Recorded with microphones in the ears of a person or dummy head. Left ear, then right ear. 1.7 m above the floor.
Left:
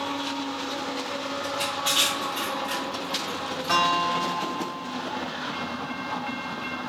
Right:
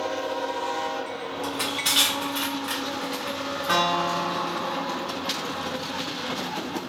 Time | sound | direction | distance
1.4 | crushing | 30° right (ahead or behind) | 1.0 m
3.7 | a guitar | 5° right (ahead or behind) | 0.7 m